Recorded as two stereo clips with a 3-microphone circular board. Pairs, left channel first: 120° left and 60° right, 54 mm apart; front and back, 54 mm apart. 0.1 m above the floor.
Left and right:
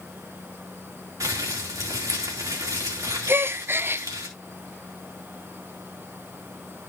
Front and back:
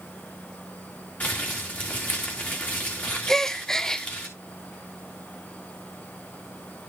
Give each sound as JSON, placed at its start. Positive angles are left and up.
{"t": 1.2, "sound": "crumpling", "azimuth_deg": -60, "distance_m": 3.0}
{"t": 3.3, "sound": "a gasp", "azimuth_deg": -75, "distance_m": 0.6}